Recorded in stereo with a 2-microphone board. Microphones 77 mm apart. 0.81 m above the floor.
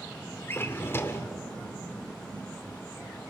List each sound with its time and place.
0.5 s a drawer: 30° left (ahead or behind), 1.2 m